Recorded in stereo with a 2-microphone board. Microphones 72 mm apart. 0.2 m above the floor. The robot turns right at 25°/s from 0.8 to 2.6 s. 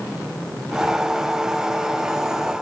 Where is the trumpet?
I don't hear a trumpet.